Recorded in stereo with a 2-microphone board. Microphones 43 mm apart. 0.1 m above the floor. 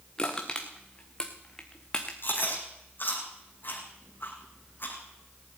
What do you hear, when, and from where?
0.2 s crushing: 20° left (ahead or behind), 1.8 m
2.2 s chewing: 50° left (ahead or behind), 3 m